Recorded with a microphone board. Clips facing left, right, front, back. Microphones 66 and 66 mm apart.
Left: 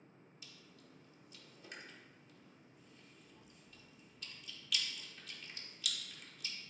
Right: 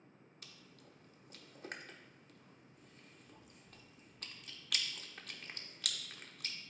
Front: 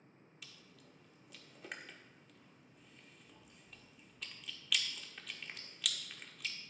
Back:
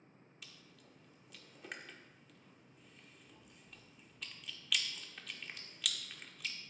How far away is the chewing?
About 0.7 m.